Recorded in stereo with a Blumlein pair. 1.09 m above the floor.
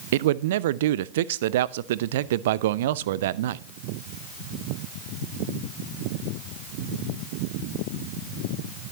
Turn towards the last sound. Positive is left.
turn(degrees=-55)